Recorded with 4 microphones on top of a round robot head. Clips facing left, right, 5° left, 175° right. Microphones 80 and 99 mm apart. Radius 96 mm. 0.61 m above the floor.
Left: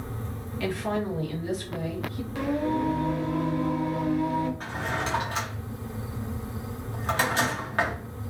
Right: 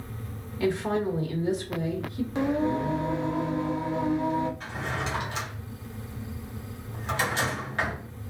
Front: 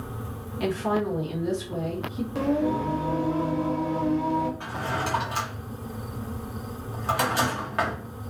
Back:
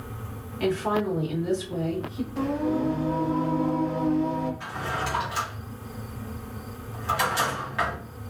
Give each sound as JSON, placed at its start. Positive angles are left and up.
{"t": 0.6, "sound": "a woman speaking", "azimuth_deg": -60, "distance_m": 1.0}
{"t": 2.4, "sound": "singing", "azimuth_deg": -25, "distance_m": 0.6}
{"t": 4.6, "sound": "a drawer", "azimuth_deg": 45, "distance_m": 1.3}